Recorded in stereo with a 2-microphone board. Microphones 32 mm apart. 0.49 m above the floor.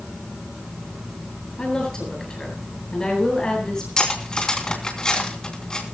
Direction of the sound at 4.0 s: 25° left (ahead or behind).